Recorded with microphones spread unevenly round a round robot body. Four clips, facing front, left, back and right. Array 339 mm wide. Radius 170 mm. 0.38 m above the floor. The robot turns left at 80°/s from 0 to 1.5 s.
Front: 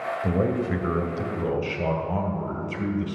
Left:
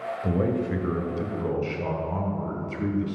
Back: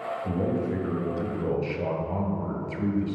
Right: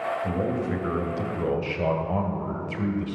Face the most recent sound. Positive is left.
turn(degrees=-75)